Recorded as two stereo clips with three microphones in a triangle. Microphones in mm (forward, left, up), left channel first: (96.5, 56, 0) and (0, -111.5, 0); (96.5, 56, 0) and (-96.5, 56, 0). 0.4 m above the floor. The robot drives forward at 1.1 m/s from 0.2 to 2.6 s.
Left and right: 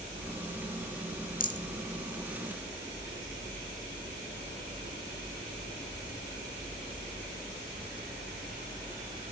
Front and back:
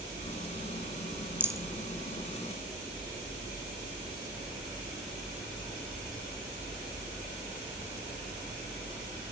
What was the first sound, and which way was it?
A rattle, 100° left.